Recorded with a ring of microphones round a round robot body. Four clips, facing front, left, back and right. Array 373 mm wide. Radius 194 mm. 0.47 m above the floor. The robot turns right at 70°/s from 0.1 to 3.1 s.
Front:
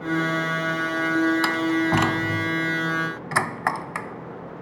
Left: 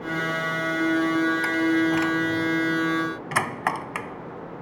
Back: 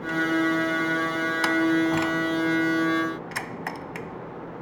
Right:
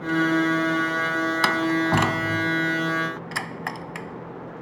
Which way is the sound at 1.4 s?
85° right.